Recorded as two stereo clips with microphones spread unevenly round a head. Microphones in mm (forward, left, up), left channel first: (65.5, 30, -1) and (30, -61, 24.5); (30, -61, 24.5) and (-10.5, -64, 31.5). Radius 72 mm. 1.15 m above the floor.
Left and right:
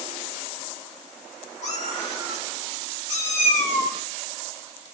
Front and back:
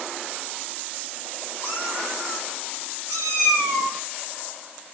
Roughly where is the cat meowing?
Left.